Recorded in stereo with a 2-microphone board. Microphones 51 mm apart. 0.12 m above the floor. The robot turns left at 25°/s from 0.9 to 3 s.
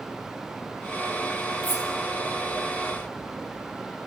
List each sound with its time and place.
1.6 s cutlery clinking: 5° left (ahead or behind), 6.5 m; by 1.9 s 10° left (ahead or behind), 6.5 m